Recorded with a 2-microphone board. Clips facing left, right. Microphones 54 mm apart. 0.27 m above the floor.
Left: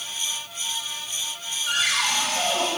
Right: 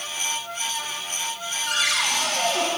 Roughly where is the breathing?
No breathing in this recording.